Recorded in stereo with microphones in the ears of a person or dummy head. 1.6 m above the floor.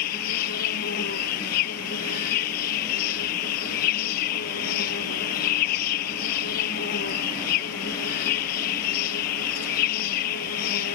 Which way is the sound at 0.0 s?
55° left (ahead or behind).